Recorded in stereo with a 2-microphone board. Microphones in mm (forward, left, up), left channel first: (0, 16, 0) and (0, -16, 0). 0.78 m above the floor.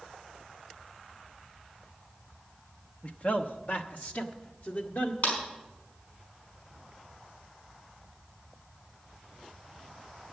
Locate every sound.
3.0 s a man speaking: 45° left (ahead or behind), 0.9 m; by 5.1 s 70° left (ahead or behind), 2.0 m
5.2 s a clap: 75° left (ahead or behind), 5 m